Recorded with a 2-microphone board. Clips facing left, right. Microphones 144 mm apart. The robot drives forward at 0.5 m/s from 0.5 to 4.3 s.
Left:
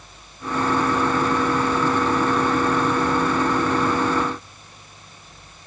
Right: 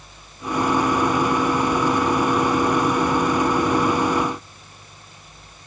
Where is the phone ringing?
I don't hear a phone ringing.